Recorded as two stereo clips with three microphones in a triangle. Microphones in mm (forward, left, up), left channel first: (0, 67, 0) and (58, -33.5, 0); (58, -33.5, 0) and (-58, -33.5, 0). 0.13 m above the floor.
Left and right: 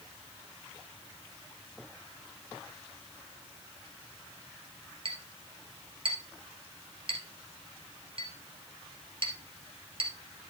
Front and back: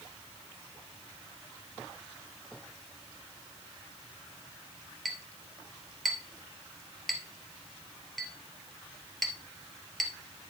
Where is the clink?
90° right, 2 m.